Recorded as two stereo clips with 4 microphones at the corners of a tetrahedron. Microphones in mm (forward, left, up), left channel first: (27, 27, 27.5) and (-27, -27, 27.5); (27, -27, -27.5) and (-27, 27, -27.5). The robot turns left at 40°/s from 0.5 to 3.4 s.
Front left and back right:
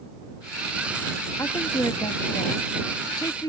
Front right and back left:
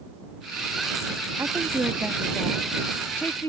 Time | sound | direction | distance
1.4 | a woman speaking | 85° left | ?